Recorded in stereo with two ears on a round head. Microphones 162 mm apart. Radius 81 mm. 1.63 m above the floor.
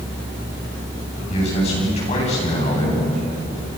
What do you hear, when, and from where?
1.3 s a man speaking: 35° left (ahead or behind), 10 m